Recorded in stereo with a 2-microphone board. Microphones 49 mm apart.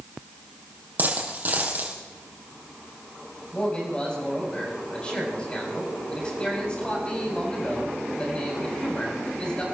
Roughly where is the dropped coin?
Right.